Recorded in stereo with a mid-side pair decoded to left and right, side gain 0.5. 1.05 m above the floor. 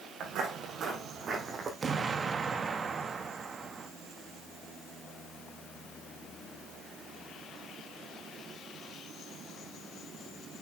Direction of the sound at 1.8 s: 35° right.